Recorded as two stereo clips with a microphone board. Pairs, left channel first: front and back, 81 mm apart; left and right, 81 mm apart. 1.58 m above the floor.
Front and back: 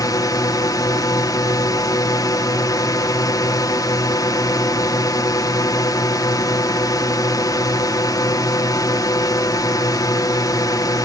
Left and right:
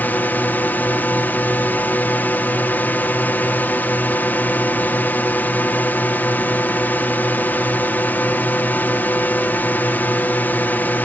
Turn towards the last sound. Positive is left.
turn(degrees=25)